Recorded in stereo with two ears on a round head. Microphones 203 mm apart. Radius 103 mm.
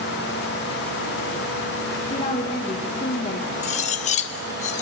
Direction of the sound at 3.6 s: 30° left (ahead or behind).